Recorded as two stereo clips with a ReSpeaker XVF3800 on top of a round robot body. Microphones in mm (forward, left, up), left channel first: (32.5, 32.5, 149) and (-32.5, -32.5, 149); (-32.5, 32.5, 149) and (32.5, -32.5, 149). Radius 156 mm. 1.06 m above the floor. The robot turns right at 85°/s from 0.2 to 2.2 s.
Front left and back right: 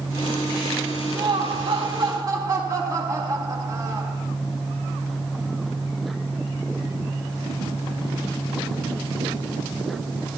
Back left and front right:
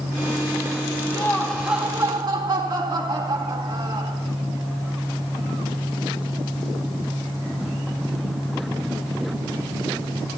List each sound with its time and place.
1.1 s laughter: 175° right, 3 m; by 4.2 s 85° right, 3 m